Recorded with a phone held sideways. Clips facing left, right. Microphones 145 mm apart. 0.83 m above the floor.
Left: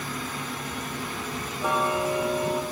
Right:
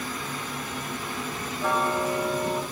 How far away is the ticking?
About 2.5 m.